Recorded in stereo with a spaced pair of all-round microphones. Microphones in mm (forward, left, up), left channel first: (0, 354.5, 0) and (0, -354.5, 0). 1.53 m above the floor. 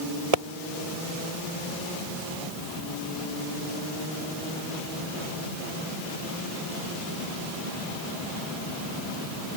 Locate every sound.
0.3 s a pop: 55° right (ahead or behind)